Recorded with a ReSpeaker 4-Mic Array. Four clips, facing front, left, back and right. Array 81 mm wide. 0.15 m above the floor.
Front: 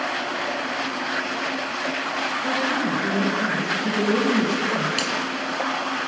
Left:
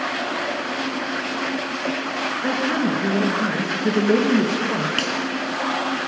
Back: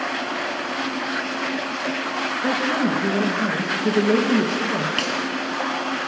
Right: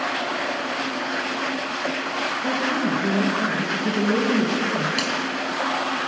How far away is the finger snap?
About 1.2 m.